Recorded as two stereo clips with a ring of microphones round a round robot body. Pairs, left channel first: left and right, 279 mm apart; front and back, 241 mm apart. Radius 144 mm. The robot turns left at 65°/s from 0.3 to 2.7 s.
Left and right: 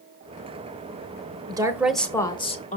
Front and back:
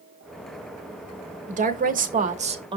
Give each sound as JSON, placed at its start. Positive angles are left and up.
{"t": 1.5, "sound": "a woman speaking", "azimuth_deg": -150, "distance_m": 1.0}